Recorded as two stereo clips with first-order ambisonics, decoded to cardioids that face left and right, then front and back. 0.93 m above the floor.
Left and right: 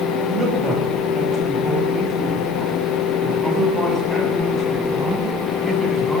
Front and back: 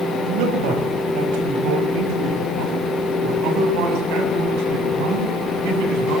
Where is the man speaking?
165° right, 5 m; by 6.2 s 175° left, 8 m.